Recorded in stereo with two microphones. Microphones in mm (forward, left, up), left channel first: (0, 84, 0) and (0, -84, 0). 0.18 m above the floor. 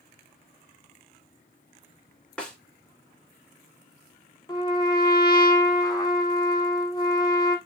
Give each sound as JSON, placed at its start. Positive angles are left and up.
{"t": 2.4, "sound": "a snare drum", "side_deg": 5, "distance_m": 1.5}
{"t": 4.5, "sound": "a trumpet", "side_deg": 25, "distance_m": 1.1}